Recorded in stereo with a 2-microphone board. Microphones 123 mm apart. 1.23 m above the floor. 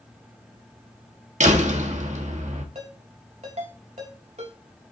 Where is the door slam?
75° right (ahead or behind), 1.6 m.